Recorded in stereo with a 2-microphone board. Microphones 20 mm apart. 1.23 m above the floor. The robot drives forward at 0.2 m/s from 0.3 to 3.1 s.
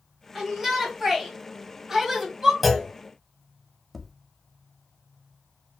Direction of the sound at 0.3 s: 20° right (ahead or behind).